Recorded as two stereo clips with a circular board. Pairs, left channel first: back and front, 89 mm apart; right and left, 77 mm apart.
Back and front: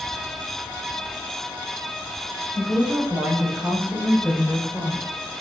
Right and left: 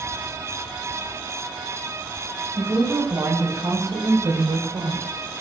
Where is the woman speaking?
60° left, 5 m; by 5.4 s 100° left, 3 m.